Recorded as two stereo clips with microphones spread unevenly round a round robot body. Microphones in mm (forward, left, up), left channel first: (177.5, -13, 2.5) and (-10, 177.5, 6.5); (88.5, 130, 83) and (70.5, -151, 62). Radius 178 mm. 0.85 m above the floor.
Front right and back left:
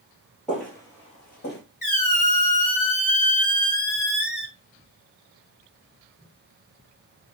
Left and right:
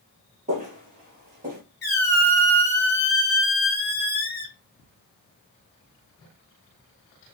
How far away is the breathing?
I don't hear breathing.